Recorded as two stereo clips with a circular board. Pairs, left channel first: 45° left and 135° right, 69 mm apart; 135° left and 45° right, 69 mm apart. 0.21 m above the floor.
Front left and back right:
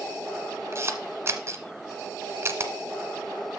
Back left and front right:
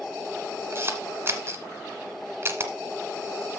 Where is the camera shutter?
90° right, 1.5 m.